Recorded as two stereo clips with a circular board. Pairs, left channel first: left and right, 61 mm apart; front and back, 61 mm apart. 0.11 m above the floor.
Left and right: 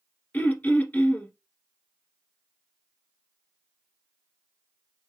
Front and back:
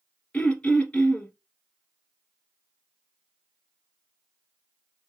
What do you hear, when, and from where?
0.3 s throat clearing: 55° left, 1.4 m